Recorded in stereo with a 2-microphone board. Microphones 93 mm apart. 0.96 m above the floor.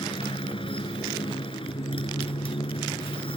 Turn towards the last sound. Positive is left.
turn(degrees=75)  # may be behind; listen again after turning